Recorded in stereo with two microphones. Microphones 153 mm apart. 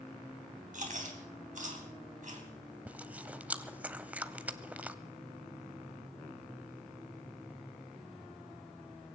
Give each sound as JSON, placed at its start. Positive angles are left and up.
{"t": 0.7, "sound": "chewing", "side_deg": -60, "distance_m": 3.5}
{"t": 2.9, "sound": "chewing", "side_deg": -10, "distance_m": 0.6}